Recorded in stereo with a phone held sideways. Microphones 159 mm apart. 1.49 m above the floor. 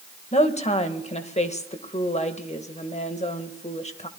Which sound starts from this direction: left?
A woman speaking, at 0.3 s.